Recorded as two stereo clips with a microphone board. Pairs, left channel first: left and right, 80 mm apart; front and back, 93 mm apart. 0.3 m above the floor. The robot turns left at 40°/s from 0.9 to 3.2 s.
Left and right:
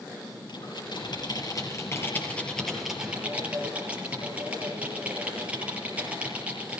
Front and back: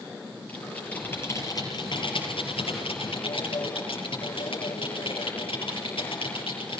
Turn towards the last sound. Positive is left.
turn(degrees=-20)